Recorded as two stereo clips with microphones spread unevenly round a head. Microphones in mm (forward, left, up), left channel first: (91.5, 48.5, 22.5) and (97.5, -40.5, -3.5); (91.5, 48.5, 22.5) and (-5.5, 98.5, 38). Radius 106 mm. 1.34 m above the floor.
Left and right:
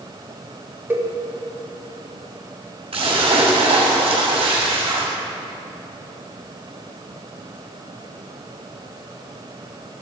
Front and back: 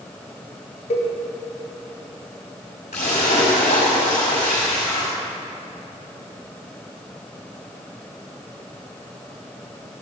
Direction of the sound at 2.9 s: 80° right.